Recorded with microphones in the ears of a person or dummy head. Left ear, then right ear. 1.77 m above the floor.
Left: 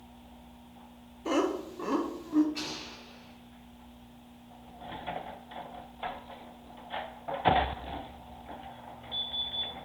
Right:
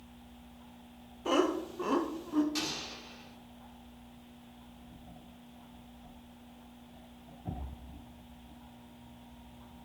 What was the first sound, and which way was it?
Laughter, 5° right (ahead or behind).